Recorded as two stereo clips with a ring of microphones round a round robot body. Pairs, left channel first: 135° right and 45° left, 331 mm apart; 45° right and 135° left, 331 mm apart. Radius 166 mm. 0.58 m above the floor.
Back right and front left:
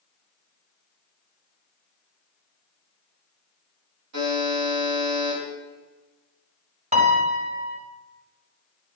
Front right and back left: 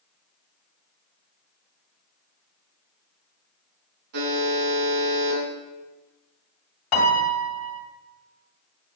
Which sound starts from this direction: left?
A buzzer, at 4.1 s.